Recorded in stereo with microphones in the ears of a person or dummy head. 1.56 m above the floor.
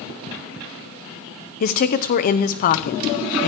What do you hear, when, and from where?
1.6 s a woman speaking: 45° left (ahead or behind), 0.8 m